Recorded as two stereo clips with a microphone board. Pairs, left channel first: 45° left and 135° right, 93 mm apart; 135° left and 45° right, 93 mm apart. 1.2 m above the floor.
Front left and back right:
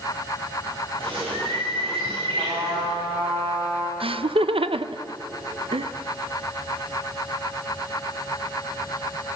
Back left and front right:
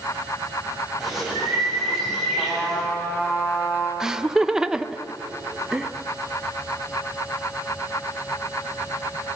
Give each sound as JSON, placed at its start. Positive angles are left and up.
{"t": 1.0, "sound": "a bird", "azimuth_deg": -135, "distance_m": 9.0}
{"t": 2.4, "sound": "a trumpet", "azimuth_deg": -150, "distance_m": 6.0}
{"t": 4.0, "sound": "laughter", "azimuth_deg": -130, "distance_m": 0.8}